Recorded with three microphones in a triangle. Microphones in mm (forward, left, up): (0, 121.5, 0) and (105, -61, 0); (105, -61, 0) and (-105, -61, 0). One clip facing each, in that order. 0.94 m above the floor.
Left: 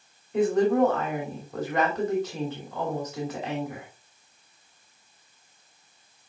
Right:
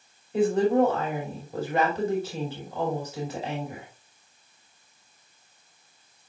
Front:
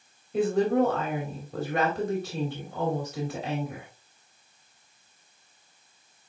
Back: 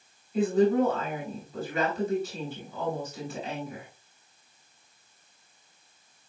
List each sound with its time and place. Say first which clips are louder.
0.3 s a woman speaking: even, even; 20° left, 2.5 m